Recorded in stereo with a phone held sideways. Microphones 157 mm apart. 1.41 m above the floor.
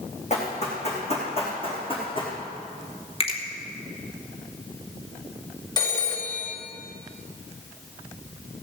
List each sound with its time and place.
0.3 s running footsteps: 45° left (ahead or behind), 4.5 m; by 2.4 s 30° left (ahead or behind), 4 m
3.2 s a finger snap: 35° left (ahead or behind), 2 m
5.8 s a phone ringing: 25° left (ahead or behind), 2.5 m